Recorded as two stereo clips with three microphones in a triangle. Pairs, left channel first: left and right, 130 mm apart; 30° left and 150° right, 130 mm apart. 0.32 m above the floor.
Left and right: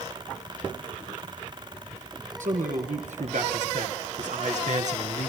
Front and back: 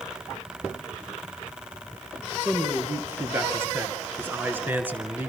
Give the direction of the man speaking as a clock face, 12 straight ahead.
3 o'clock.